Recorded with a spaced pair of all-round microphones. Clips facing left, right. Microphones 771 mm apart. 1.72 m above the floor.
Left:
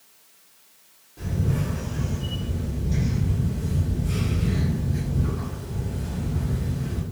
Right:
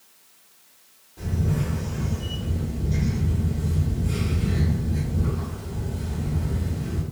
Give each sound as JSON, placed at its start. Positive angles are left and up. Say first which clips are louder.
{"t": 1.2, "sound": "a camera shutter", "louder": "even", "side_deg": 5, "distance_m": 1.3}